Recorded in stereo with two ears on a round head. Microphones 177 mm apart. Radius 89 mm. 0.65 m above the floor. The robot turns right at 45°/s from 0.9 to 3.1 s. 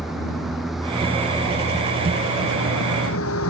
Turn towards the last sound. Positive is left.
turn(degrees=100)